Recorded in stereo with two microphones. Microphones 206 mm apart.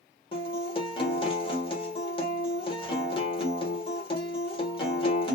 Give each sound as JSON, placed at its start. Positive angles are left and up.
{"t": 0.3, "sound": "a guitar", "side_deg": 25, "distance_m": 1.0}